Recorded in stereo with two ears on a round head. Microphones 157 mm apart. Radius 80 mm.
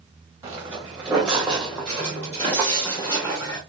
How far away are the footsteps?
About 1.7 m.